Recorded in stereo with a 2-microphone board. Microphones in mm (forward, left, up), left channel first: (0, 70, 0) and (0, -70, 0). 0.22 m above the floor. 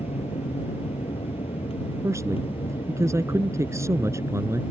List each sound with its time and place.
0.0 s an aircraft: 45° left (ahead or behind); by 4.7 s 40° left (ahead or behind)
2.0 s a man speaking: 20° right (ahead or behind)